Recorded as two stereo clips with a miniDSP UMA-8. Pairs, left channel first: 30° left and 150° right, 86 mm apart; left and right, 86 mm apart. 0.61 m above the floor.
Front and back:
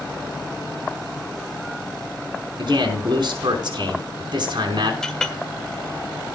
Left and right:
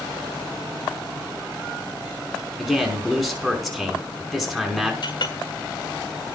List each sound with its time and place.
2.6 s a man speaking: straight behind, 5 m
5.0 s a clink: 115° left, 1.5 m